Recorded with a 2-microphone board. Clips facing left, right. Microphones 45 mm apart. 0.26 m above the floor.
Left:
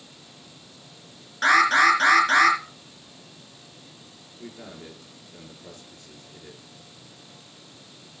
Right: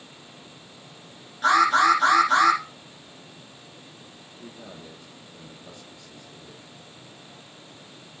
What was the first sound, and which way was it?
An alarm, 75° left (ahead or behind).